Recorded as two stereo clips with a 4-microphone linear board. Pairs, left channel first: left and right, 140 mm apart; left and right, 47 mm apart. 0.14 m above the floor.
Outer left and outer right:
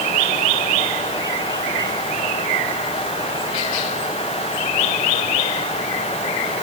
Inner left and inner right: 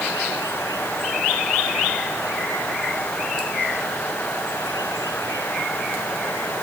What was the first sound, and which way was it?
Only background noise.